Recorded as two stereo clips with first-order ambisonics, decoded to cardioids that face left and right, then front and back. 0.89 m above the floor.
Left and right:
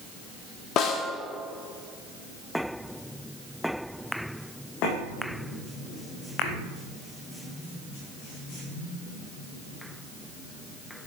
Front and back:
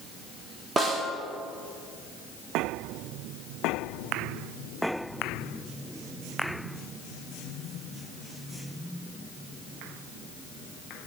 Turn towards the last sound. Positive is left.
turn(degrees=115)